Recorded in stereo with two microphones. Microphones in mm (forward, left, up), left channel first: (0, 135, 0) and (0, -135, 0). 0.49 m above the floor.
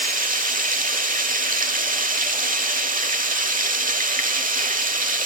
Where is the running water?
35° right (ahead or behind), 1.1 m.